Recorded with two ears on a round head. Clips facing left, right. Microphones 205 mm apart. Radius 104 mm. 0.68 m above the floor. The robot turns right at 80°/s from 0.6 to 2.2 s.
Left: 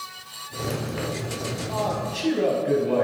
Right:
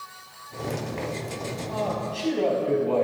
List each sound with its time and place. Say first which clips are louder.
1.7 s a man speaking: even; 20° right, 6 m; by 3.0 s 20° left, 6 m